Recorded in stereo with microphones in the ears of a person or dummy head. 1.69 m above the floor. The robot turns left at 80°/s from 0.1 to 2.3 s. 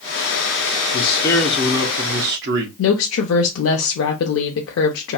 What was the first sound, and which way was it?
A man speaking, 50° left.